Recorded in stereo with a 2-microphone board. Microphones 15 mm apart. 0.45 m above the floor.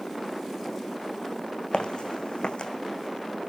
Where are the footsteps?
70° left (ahead or behind), 1.1 m.